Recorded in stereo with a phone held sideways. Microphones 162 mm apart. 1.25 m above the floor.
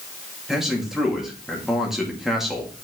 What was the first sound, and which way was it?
A man speaking, centre (ahead or behind).